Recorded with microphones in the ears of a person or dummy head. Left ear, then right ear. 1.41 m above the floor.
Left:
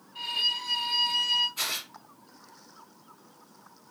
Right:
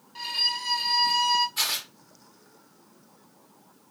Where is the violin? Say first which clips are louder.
Right 1 dB; 50° right (ahead or behind), 1.3 m.